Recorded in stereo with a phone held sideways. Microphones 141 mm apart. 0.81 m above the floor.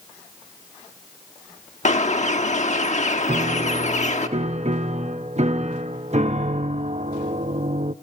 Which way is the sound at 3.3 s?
55° right (ahead or behind).